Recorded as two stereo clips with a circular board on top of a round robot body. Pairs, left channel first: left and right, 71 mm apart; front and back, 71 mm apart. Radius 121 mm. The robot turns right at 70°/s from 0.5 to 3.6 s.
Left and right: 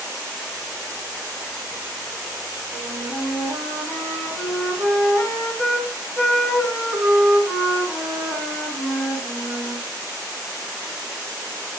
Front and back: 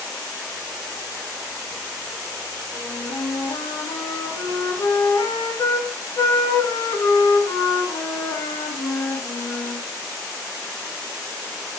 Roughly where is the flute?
Ahead right.